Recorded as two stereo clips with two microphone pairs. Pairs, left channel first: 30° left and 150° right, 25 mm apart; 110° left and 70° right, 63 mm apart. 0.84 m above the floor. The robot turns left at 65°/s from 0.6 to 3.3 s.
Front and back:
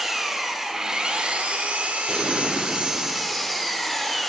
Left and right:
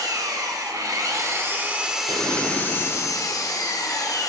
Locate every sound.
0.0 s an engine running: 65° right, 0.8 m; by 4.3 s 120° left, 0.8 m
2.1 s an explosion: 90° right, 1.3 m; by 3.0 s 150° right, 1.3 m